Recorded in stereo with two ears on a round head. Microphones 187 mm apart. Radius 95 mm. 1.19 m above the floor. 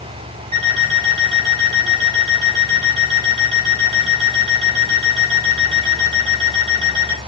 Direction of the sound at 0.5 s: 30° right (ahead or behind).